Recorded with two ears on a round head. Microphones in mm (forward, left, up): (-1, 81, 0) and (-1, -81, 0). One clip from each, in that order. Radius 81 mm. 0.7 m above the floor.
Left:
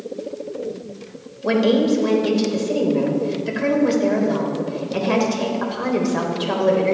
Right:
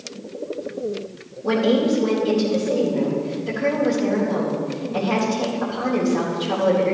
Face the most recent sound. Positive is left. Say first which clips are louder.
# left 2 dB
turn(degrees=60)  # may be behind; listen again after turning